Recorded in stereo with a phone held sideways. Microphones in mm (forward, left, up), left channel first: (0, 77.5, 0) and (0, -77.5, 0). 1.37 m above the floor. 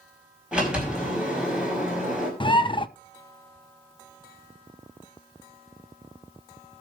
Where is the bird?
30° left (ahead or behind), 0.6 m.